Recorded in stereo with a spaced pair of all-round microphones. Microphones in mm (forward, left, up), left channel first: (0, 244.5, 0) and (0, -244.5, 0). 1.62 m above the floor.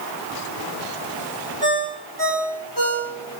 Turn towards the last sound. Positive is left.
turn(degrees=-50)  # may be behind; listen again after turning